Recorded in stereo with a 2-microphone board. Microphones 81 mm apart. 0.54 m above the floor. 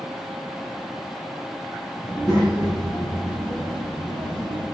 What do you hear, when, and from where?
2.0 s a child speaking: 35° right (ahead or behind), 3.5 m; by 4.7 s 70° right (ahead or behind), 3 m